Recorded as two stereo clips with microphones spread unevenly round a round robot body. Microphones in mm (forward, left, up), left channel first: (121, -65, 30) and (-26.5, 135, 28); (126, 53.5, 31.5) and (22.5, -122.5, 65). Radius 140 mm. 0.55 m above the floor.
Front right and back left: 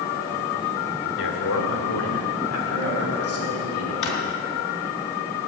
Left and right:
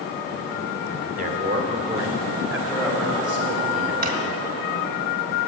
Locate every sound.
1.2 s a man speaking: 75° right, 1.7 m; by 3.9 s 30° right, 4.5 m
4.0 s a drawer: 75° right, 1.8 m